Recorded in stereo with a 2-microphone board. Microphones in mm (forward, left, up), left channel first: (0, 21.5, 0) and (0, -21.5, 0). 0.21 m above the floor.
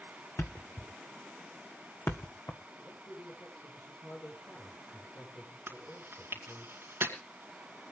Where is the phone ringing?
No phone ringing in this recording.